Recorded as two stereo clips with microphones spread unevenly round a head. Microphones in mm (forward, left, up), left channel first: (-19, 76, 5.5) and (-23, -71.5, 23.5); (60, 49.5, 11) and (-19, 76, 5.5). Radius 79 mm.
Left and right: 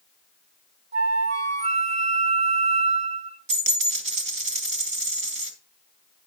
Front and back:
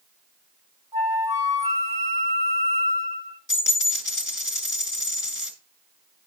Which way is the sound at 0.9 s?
130° right.